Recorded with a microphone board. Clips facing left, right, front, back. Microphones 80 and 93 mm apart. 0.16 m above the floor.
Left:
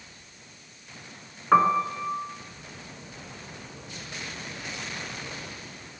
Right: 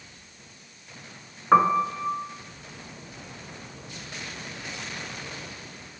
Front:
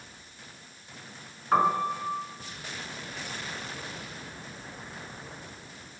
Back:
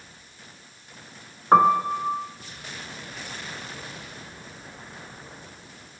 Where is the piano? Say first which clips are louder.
Right 1 dB, back 7 dB; 170° right, 0.5 m.